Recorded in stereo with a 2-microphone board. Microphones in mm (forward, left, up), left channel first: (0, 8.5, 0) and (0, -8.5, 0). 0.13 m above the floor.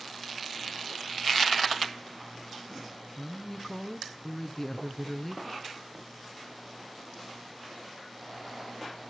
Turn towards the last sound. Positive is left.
turn(degrees=20)  # may be behind; listen again after turning